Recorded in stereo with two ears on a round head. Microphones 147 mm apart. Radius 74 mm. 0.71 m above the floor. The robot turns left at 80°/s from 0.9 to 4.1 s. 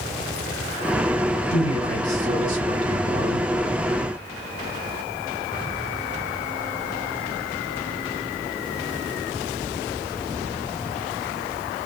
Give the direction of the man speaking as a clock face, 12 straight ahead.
10 o'clock.